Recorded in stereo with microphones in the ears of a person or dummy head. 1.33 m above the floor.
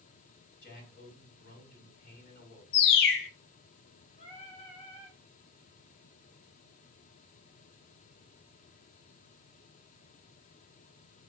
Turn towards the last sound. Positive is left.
turn(degrees=35)  # may be behind; listen again after turning